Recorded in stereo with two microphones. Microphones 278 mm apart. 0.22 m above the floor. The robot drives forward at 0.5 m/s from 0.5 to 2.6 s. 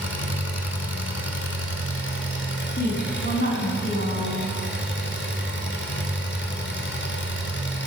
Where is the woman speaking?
40° left (ahead or behind), 1.7 m.